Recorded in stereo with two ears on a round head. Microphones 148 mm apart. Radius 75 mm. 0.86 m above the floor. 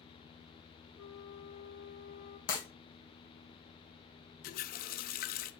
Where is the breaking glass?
50° left (ahead or behind), 2.5 m.